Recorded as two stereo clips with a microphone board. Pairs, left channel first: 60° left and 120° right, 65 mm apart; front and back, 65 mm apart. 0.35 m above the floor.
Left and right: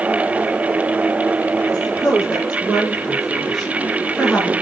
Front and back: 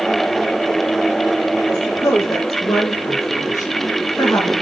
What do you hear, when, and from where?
1.7 s a woman speaking: 45° right, 8 m; by 4.5 s 25° right, 5 m